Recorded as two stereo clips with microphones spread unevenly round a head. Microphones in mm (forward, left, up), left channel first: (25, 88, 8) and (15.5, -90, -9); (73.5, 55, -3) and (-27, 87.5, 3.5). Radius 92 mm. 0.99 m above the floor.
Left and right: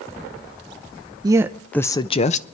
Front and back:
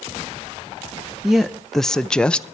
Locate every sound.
1.2 s a woman speaking: 110° right, 0.5 m; by 2.4 s 55° left, 0.6 m